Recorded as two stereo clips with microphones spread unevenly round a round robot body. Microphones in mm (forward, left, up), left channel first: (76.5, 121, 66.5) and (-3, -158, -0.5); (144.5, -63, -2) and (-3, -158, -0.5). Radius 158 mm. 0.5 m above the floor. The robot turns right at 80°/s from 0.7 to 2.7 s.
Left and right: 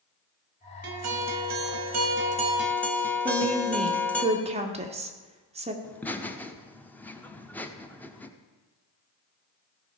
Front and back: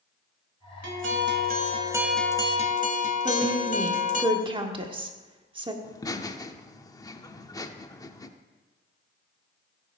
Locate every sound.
0.8 s a guitar: 160° right, 1.3 m; by 4.2 s 15° right, 1.3 m
3.2 s a woman speaking: 115° right, 1.4 m
5.8 s laughter: 25° right, 1.0 m